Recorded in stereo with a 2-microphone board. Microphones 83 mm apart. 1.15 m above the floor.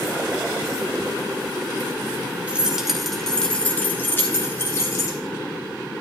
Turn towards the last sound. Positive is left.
turn(degrees=40)  # may be behind; listen again after turning